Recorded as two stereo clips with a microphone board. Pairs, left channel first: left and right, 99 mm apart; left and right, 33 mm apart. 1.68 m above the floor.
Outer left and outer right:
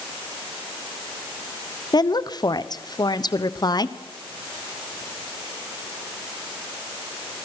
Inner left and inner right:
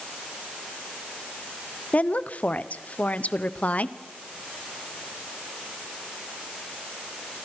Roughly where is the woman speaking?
Left.